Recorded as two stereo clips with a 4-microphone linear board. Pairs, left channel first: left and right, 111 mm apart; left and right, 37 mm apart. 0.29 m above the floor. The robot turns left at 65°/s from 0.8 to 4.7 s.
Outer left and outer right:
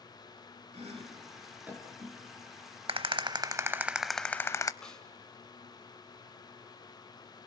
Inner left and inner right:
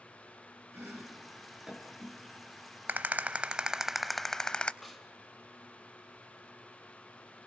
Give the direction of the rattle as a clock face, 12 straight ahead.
3 o'clock.